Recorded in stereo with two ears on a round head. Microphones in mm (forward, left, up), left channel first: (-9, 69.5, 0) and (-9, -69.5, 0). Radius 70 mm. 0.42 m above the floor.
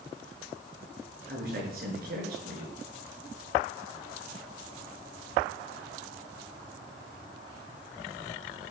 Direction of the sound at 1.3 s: 60° right (ahead or behind).